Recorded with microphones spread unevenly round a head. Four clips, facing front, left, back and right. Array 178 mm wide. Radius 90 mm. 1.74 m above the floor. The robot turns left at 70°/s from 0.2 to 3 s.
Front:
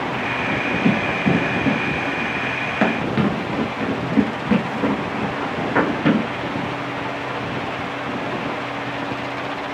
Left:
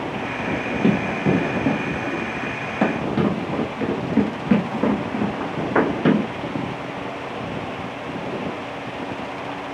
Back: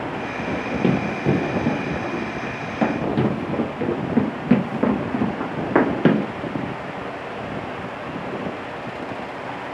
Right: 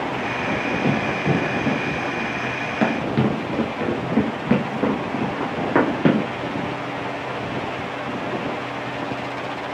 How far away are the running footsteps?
About 2 m.